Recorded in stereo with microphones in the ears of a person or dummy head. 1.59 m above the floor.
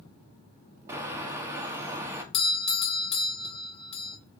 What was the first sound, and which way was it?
A bird, 15° right (ahead or behind).